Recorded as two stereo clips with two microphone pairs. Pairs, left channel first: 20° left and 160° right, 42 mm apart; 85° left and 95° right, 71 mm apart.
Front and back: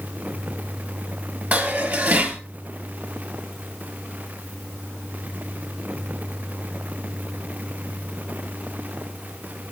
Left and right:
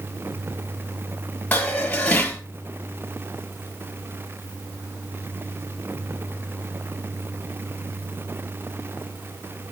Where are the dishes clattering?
155° left, 2.5 m.